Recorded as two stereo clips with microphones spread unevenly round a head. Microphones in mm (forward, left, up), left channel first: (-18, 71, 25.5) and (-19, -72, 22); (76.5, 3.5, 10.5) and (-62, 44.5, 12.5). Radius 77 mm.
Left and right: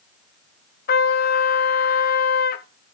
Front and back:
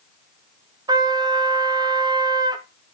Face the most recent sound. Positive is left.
turn(degrees=100)